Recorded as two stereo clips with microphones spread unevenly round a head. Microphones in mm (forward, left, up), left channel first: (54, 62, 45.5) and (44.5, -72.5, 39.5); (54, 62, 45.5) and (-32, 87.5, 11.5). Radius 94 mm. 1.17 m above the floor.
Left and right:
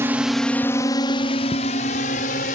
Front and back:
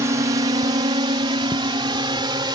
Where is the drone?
165° right; by 2.5 s 125° left.